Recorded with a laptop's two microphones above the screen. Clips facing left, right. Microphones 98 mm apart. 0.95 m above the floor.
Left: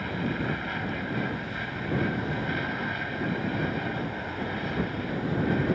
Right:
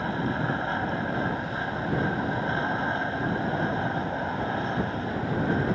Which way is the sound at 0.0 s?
30° right (ahead or behind).